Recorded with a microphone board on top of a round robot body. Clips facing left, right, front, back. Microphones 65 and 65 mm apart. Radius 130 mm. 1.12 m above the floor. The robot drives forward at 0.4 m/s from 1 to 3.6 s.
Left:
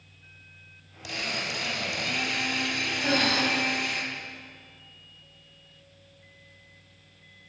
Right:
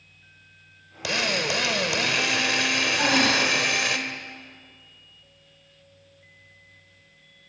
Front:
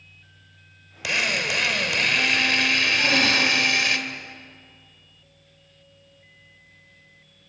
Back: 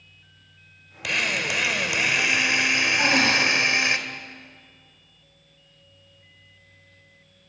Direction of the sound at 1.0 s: 85° right.